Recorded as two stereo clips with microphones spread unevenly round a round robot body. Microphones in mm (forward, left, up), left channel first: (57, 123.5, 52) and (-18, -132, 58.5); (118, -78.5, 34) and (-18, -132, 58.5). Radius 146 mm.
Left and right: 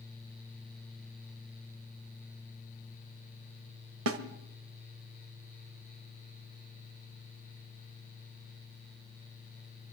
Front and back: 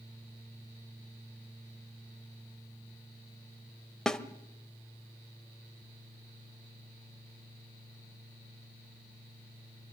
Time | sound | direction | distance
4.1 | a snare drum | 65° right | 1.8 m